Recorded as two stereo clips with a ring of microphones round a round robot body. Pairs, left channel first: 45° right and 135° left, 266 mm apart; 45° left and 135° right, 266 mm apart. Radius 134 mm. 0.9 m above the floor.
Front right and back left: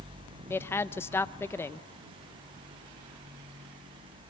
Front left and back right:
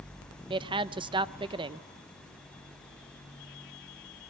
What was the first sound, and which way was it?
A woman speaking, 110° right.